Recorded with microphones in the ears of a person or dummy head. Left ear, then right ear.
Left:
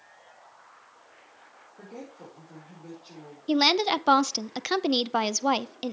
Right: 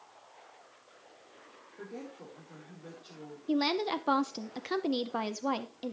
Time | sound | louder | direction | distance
1.8 | a woman speaking | left 1 dB | 15° right (ahead or behind) | 4.5 m
3.5 | a woman speaking | left 8 dB | 30° left (ahead or behind) | 0.5 m